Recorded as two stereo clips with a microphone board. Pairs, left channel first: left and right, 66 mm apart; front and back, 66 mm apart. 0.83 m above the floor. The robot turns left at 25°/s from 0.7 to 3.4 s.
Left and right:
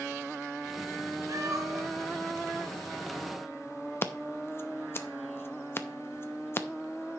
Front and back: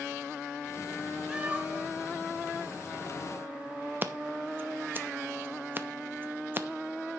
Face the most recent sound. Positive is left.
turn(degrees=130)